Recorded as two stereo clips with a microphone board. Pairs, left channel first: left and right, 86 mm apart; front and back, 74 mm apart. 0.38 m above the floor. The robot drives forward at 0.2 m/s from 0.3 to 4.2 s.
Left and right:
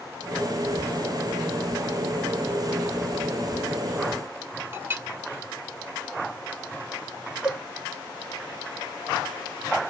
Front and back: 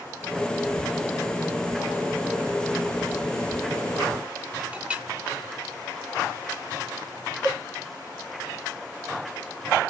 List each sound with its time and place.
4.7 s a clink: 120° right, 0.6 m
7.4 s a cowbell: 170° right, 3 m